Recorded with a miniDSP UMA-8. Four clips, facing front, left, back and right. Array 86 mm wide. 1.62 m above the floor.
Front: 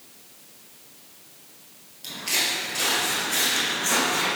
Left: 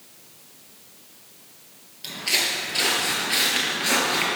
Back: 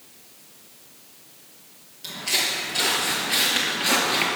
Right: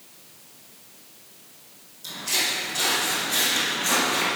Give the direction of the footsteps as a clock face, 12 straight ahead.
9 o'clock.